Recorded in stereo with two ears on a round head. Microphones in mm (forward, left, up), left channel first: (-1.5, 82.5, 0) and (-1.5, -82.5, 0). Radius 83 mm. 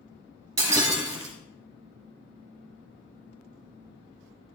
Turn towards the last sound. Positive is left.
turn(degrees=-15)  # may be behind; listen again after turning